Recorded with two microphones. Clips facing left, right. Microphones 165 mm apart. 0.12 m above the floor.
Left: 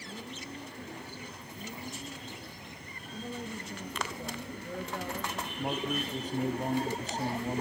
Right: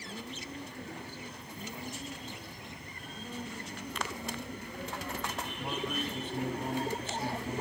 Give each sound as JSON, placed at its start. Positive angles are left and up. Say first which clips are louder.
{"t": 3.1, "sound": "a woman speaking", "louder": "left 3 dB", "side_deg": 70, "distance_m": 5.0}
{"t": 5.6, "sound": "a man speaking", "louder": "left 4 dB", "side_deg": 40, "distance_m": 3.0}